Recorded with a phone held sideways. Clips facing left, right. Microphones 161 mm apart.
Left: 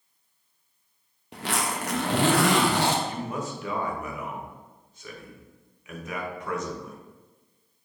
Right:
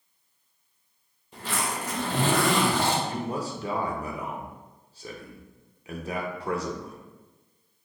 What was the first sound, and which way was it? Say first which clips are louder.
A zipper: left 2 dB; 75° left (ahead or behind).